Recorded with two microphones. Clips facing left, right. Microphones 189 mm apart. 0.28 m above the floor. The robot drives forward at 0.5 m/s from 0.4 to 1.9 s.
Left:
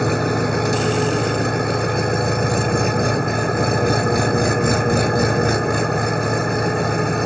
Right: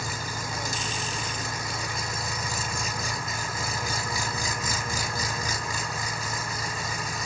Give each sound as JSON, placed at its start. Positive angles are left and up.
{"t": 0.0, "sound": "an engine running", "side_deg": 65}